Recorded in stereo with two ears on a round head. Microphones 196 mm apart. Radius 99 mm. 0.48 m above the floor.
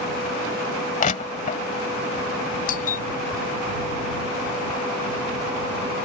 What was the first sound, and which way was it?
Crushing, 35° left (ahead or behind).